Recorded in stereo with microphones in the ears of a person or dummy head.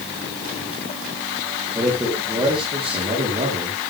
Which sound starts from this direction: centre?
A man speaking, at 1.8 s.